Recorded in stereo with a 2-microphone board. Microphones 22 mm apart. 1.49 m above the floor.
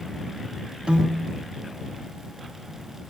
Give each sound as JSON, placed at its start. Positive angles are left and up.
{"t": 0.9, "sound": "a piano", "side_deg": -50}